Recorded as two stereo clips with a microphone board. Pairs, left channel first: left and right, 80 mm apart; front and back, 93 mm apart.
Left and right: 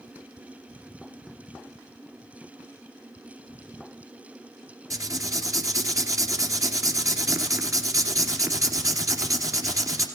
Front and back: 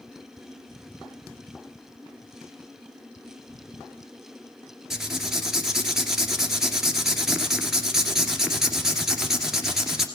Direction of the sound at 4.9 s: 95° right.